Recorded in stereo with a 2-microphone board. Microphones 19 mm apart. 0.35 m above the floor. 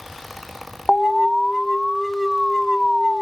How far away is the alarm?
About 0.7 m.